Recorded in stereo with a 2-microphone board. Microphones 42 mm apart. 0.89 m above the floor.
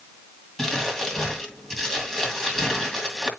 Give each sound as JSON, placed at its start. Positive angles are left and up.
{"t": 0.6, "sound": "crumpling", "side_deg": 10, "distance_m": 2.0}